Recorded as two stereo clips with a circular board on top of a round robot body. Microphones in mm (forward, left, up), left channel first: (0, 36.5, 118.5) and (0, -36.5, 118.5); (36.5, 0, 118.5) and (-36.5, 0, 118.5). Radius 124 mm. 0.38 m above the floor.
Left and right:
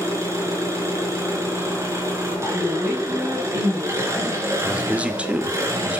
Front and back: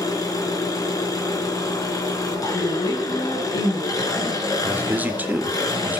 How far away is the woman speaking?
About 3.5 m.